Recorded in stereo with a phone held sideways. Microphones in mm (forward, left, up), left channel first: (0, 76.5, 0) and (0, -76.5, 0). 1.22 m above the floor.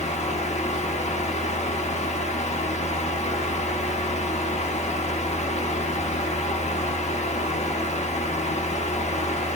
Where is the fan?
45° left (ahead or behind), 0.8 m.